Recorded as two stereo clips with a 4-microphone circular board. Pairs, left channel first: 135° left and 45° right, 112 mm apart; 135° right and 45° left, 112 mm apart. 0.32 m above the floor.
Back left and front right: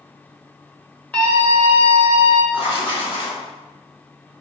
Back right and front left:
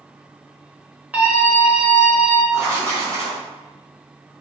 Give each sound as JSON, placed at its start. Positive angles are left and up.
{"t": 1.1, "sound": "a scream", "azimuth_deg": 85, "distance_m": 1.1}
{"t": 2.5, "sound": "writing", "azimuth_deg": 105, "distance_m": 1.9}